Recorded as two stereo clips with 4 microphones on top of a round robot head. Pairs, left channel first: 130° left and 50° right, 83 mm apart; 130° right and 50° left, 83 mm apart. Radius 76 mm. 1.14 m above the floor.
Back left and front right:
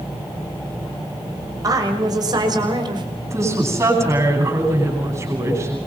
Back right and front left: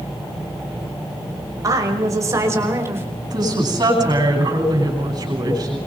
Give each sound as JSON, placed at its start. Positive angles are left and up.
{"t": 1.6, "sound": "a woman speaking", "azimuth_deg": 0, "distance_m": 5.5}
{"t": 3.2, "sound": "a woman speaking", "azimuth_deg": 5, "distance_m": 10.0}